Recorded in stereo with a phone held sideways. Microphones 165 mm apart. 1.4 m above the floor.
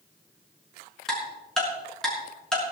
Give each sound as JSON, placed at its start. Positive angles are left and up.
{"t": 1.1, "sound": "ticking", "side_deg": 5, "distance_m": 5.0}